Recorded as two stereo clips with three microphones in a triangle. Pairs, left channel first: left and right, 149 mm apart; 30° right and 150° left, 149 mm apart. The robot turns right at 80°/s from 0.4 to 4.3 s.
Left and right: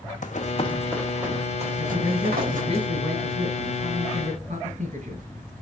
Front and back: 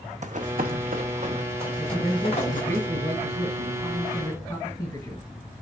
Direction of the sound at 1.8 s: 60° left.